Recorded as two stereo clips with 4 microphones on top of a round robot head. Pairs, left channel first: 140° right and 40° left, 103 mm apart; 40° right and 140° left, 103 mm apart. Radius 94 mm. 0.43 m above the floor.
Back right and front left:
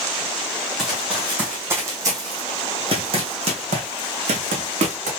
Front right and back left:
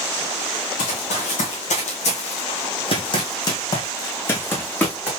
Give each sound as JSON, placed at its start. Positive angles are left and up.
{"t": 0.8, "sound": "running footsteps", "azimuth_deg": -50, "distance_m": 1.6}